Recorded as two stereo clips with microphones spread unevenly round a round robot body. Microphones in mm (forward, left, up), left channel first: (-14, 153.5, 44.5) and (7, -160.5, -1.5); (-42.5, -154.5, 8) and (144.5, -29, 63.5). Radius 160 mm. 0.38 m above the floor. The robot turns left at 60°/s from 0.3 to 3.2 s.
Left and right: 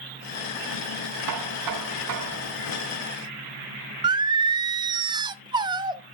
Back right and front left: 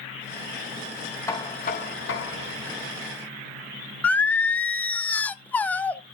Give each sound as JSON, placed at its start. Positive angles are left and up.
{"t": 1.3, "sound": "knocking", "azimuth_deg": -70, "distance_m": 2.5}
{"t": 4.0, "sound": "singing", "azimuth_deg": -115, "distance_m": 0.6}